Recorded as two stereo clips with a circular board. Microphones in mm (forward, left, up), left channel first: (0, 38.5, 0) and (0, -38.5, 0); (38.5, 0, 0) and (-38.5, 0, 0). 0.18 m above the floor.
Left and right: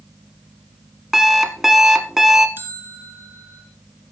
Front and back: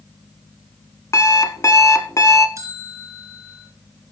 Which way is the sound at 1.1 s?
5° right.